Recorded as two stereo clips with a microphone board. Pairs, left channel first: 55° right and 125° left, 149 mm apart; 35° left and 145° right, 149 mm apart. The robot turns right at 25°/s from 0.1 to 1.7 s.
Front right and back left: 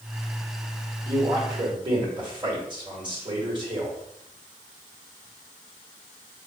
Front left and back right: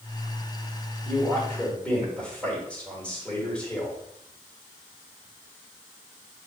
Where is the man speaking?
95° left, 1.4 m; by 4.0 s 110° left, 1.4 m.